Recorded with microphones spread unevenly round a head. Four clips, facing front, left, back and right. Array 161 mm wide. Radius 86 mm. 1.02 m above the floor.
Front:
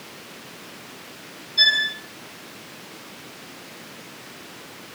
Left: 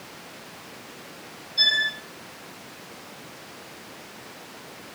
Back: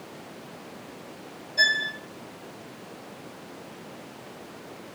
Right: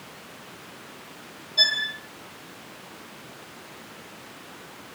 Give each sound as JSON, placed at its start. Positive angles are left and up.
{"t": 1.6, "sound": "a violin", "azimuth_deg": -145, "distance_m": 3.5}